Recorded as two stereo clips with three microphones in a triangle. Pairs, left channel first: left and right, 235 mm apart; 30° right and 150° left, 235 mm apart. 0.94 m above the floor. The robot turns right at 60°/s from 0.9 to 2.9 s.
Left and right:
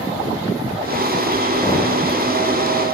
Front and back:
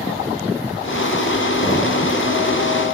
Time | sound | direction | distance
1.6 | knocking | 10° left | 6.5 m